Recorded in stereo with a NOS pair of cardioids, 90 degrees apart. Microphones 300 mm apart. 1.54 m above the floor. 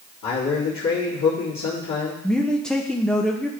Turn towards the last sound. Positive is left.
turn(degrees=5)